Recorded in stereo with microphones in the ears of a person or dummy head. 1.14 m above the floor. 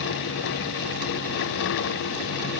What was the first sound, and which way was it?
Only background noise.